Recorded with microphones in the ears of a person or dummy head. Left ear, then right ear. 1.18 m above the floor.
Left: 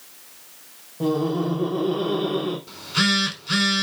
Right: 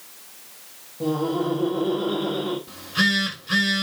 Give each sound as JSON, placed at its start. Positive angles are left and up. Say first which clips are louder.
{"t": 1.0, "sound": "laughter", "louder": "left 1 dB", "side_deg": 90, "distance_m": 3.0}
{"t": 2.7, "sound": "a phone buzzing", "louder": "even", "side_deg": 60, "distance_m": 4.0}